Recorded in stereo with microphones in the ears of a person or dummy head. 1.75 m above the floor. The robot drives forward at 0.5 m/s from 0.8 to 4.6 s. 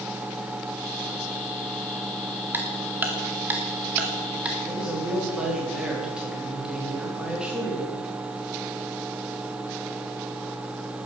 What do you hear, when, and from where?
2.5 s ticking: 15° right (ahead or behind), 1.7 m; by 4.5 s 10° right (ahead or behind), 2.5 m
4.6 s a woman speaking: 10° right (ahead or behind), 3.5 m